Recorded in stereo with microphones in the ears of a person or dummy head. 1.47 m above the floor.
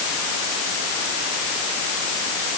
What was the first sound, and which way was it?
Only background noise.